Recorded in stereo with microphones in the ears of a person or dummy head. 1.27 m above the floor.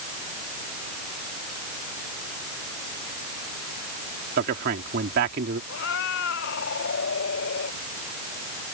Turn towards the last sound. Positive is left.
turn(degrees=60)  # may be behind; listen again after turning